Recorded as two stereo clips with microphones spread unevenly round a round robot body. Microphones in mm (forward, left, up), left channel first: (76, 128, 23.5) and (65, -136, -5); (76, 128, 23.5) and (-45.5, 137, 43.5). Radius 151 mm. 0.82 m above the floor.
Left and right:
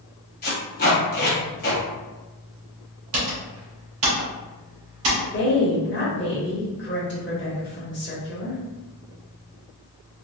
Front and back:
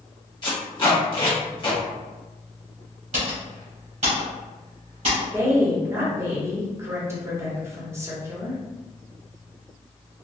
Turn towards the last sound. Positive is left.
turn(degrees=110)